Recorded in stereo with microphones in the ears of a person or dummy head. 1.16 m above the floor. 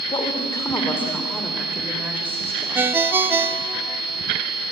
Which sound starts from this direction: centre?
A ringtone, at 2.8 s.